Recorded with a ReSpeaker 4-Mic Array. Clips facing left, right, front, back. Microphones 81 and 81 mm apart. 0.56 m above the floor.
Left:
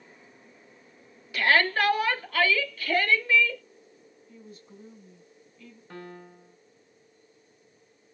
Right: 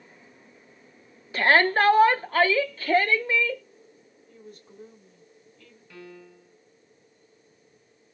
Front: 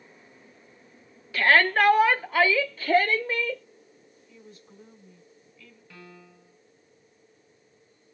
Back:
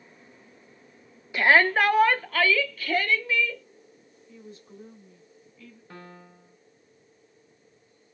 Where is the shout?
120° right, 0.8 m; by 3.6 s 30° right, 1.2 m.